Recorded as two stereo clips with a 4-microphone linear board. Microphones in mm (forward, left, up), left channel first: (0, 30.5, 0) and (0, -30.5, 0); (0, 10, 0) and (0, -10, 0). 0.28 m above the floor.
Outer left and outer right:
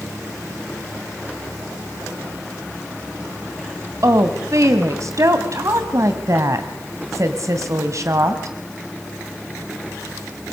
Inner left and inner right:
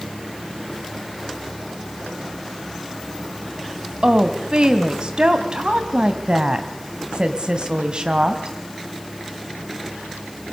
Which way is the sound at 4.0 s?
55° right (ahead or behind).